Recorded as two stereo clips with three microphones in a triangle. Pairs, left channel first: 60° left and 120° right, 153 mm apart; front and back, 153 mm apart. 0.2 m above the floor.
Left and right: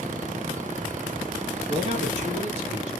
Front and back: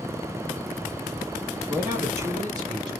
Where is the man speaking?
105° right, 1.9 m; by 2.9 s 130° right, 2 m.